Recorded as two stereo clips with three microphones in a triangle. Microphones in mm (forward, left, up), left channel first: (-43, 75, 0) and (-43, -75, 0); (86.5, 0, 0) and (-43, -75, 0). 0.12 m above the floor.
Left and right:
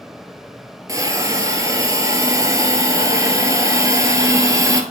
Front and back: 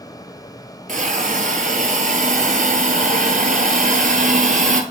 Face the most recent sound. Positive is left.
turn(degrees=-155)